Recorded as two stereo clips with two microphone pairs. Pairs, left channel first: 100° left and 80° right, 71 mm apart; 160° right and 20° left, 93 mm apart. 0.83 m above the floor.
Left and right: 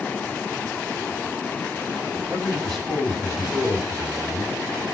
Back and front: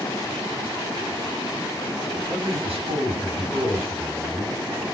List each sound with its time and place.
2.3 s a man speaking: 10° left, 6.5 m; by 4.5 s straight ahead, 7.5 m